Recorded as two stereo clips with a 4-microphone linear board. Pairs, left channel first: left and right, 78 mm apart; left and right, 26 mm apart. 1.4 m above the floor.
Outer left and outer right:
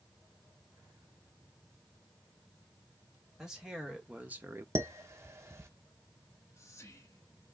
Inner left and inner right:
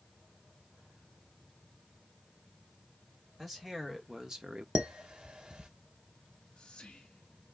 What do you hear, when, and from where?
3.4 s a man speaking: 10° right (ahead or behind), 1.7 m; by 4.7 s 30° right (ahead or behind), 0.5 m
4.8 s dishes clattering: 35° right (ahead or behind), 0.6 m
6.2 s whispering: 35° left (ahead or behind), 1.6 m